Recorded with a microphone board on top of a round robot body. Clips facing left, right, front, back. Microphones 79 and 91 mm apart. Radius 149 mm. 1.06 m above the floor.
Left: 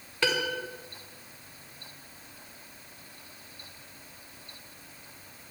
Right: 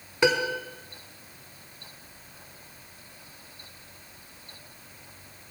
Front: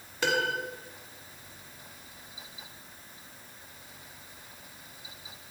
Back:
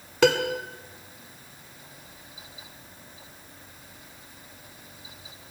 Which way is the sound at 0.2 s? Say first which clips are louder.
Right 5 dB, back 7 dB; 165° right.